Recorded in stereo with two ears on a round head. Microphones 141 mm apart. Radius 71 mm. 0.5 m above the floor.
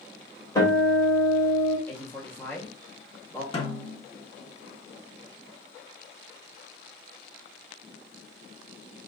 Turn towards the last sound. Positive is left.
turn(degrees=35)  # may be behind; listen again after turning